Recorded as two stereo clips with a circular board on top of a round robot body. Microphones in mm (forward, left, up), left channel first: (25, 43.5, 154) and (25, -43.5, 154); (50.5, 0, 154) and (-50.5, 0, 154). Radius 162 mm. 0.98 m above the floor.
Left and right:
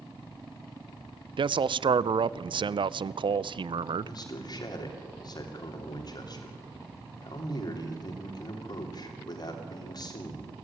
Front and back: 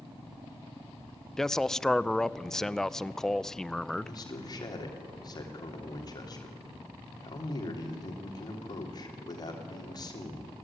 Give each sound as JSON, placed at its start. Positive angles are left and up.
{"t": 1.4, "sound": "a man speaking", "azimuth_deg": -85, "distance_m": 0.6}
{"t": 4.0, "sound": "a man speaking", "azimuth_deg": 50, "distance_m": 3.0}